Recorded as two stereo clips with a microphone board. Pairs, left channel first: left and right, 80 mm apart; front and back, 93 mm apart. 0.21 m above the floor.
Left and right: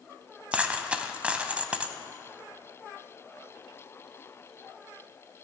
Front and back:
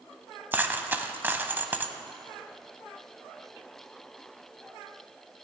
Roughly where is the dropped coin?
Behind right.